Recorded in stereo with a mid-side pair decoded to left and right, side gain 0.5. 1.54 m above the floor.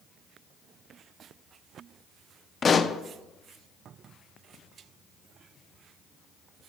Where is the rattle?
I don't hear a rattle.